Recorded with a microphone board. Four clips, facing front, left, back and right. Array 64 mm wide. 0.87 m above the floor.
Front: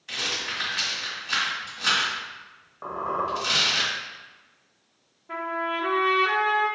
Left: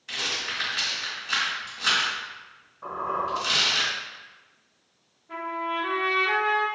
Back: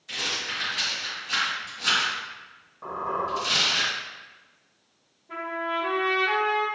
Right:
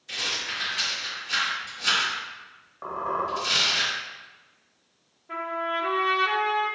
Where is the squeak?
50° right, 1.1 m.